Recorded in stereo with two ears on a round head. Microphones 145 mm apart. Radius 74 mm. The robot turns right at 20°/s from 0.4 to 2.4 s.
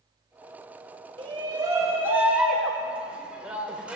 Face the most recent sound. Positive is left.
turn(degrees=-10)  # may be behind; listen again after turning